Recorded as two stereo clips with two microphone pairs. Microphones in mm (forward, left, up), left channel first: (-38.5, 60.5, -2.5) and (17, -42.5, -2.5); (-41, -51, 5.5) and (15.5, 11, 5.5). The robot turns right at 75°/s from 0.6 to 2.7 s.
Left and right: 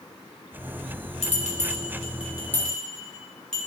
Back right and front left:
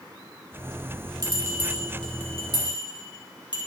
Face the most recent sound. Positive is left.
turn(degrees=-160)